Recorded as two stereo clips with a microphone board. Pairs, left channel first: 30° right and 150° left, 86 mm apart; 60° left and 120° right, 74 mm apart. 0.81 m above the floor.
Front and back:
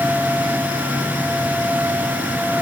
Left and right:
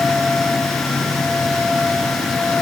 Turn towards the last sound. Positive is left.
No sound to turn to.